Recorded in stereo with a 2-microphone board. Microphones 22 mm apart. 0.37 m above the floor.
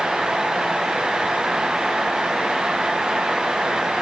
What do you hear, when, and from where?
Only background noise.